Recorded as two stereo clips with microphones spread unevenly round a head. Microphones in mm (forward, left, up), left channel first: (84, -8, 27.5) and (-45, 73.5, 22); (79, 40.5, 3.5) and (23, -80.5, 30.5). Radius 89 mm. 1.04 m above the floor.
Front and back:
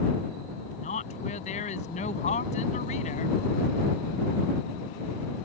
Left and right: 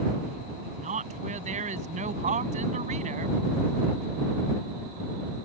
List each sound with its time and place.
0.8 s a woman speaking: 85° right